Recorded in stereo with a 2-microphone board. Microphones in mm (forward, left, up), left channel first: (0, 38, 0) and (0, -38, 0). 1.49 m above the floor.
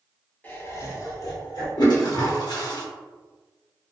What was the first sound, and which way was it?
Laughter, 25° left (ahead or behind).